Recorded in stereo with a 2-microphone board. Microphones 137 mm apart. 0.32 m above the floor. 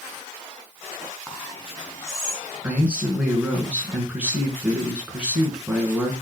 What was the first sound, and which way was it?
Whispering, 20° left (ahead or behind).